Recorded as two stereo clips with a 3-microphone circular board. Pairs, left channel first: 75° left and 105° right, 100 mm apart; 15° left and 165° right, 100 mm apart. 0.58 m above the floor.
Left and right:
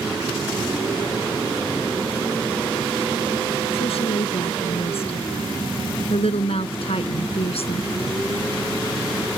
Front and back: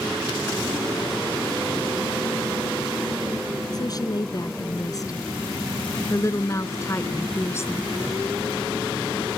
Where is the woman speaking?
65° left; by 7.9 s 80° left.